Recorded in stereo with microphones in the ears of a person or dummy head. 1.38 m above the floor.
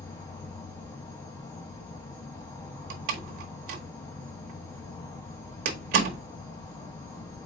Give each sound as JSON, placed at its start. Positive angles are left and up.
{"t": 0.0, "sound": "an insect", "side_deg": 20, "distance_m": 0.7}
{"t": 2.9, "sound": "a door slam", "side_deg": -55, "distance_m": 0.9}